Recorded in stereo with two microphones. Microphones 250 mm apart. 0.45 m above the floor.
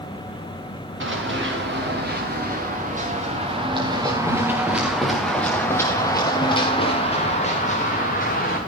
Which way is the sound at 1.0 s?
50° right (ahead or behind).